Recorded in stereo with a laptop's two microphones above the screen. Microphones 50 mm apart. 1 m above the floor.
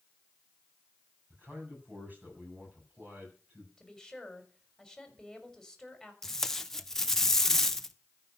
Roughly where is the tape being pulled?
Centre.